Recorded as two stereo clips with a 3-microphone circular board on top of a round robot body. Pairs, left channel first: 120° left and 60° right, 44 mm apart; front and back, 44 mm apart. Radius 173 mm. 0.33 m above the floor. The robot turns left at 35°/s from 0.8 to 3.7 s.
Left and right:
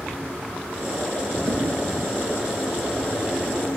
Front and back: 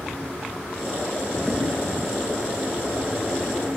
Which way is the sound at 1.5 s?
75° right.